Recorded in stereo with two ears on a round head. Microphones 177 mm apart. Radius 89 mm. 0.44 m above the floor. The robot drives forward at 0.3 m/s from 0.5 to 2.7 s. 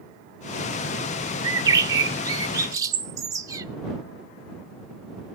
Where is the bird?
20° right (ahead or behind), 0.8 m.